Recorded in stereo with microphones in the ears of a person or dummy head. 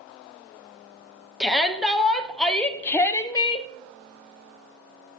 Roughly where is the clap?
No clap in this recording.